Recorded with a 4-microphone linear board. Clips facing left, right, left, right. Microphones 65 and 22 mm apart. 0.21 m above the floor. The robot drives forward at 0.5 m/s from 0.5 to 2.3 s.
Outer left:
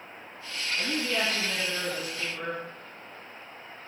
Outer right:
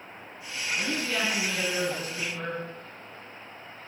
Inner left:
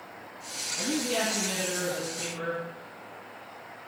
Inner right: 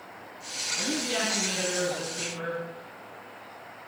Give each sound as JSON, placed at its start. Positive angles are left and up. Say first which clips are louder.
{"t": 0.8, "sound": "a woman speaking", "louder": "outer left 1 dB, inner left 1 dB", "side_deg": -40, "distance_m": 1.8}